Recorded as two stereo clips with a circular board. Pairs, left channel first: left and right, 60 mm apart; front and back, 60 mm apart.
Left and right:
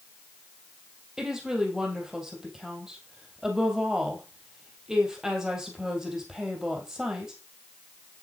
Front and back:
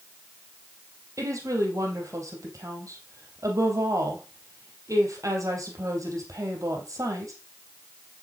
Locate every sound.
1.2 s a woman speaking: 170° right, 3 m